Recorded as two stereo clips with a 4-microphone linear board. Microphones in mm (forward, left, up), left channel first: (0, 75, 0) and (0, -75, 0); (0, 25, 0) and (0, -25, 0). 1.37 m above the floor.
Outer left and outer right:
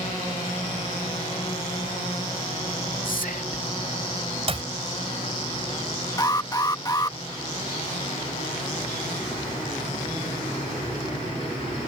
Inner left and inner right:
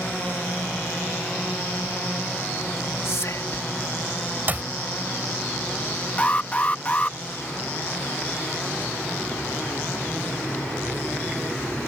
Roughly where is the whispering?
Left.